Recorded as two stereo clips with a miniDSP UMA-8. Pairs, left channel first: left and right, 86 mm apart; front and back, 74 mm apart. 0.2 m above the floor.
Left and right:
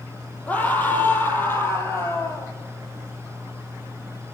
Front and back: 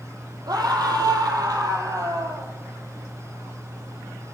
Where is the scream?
160° left, 6.5 m; by 2.5 s 145° left, 5.5 m.